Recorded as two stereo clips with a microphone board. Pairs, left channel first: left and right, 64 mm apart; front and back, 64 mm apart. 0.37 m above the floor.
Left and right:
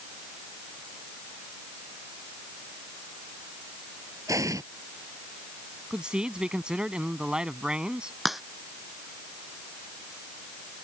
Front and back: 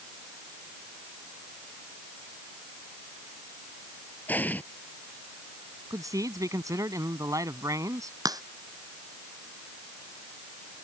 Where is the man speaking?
165° right.